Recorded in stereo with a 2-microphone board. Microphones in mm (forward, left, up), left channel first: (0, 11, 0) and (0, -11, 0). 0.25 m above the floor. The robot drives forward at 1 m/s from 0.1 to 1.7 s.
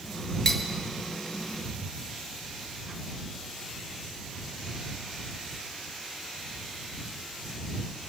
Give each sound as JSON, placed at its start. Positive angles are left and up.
{"t": 0.5, "sound": "cutlery clinking", "side_deg": 5, "distance_m": 2.5}